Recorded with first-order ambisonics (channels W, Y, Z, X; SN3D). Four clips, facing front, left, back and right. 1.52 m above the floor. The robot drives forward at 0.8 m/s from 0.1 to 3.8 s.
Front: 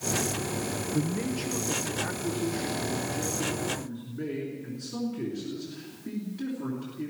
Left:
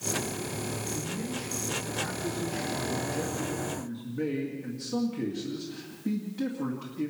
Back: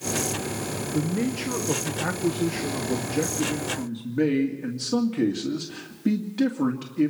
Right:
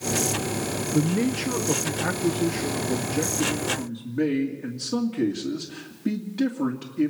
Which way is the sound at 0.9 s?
100° right.